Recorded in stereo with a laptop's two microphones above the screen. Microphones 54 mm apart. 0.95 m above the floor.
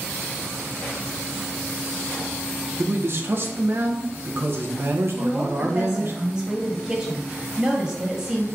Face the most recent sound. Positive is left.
turn(degrees=-10)  # may be behind; listen again after turning